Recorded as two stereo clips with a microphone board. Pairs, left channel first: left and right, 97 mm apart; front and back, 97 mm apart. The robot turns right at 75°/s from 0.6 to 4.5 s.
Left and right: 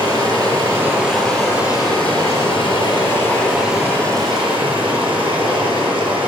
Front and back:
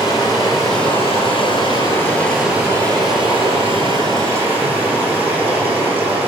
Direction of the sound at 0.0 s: 40° right.